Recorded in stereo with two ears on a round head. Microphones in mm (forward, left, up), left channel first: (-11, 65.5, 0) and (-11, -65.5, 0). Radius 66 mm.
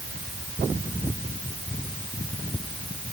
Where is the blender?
I don't hear a blender.